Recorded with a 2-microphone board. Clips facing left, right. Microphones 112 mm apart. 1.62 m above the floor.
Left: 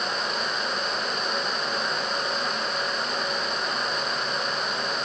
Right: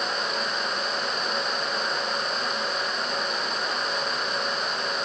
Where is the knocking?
I don't hear knocking.